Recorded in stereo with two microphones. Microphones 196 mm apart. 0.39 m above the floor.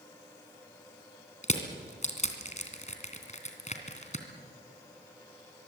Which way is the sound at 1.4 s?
40° left (ahead or behind).